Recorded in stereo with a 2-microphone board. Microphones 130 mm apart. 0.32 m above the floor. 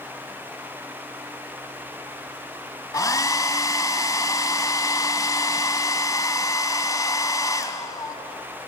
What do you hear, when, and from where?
2.9 s a hair dryer: 30° left (ahead or behind), 1.4 m